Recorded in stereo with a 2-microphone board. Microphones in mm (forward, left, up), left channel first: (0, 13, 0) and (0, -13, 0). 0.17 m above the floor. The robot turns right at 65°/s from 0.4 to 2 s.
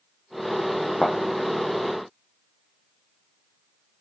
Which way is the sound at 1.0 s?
60° left (ahead or behind).